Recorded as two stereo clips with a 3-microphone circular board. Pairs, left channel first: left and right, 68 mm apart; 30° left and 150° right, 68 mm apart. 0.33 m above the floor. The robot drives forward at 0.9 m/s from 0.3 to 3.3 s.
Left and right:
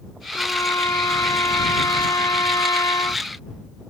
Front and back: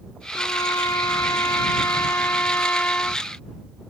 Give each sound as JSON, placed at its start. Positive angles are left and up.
{"t": 0.3, "sound": "a trumpet", "azimuth_deg": 50}